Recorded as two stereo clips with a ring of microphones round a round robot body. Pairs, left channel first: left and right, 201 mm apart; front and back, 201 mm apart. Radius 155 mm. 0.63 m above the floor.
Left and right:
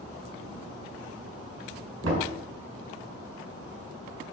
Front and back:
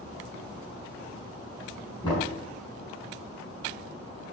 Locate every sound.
2.0 s knocking: 75° right, 4 m